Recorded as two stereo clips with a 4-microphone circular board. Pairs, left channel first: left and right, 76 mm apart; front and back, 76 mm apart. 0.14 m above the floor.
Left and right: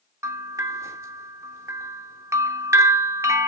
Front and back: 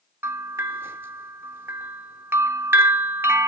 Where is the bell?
130° right, 0.5 m.